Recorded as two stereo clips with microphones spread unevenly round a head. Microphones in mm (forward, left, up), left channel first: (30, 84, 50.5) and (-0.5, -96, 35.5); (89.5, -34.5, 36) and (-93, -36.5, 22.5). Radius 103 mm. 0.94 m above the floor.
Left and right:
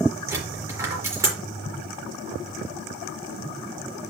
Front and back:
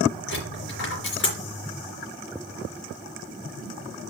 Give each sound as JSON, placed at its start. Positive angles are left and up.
{"t": 0.3, "sound": "a dropped coin", "azimuth_deg": -25, "distance_m": 3.5}